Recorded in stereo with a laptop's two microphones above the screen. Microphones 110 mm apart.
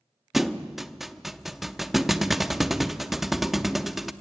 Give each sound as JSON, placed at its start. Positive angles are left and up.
{"t": 0.3, "sound": "a thud", "side_deg": 0, "distance_m": 0.7}